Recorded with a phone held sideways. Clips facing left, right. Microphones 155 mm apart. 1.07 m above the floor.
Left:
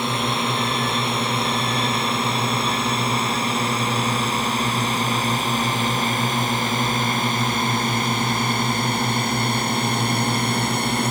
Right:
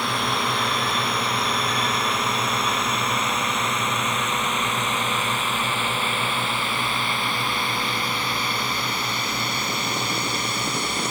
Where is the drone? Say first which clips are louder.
Left 2 dB; 25° left (ahead or behind); by 11.1 s 55° left (ahead or behind).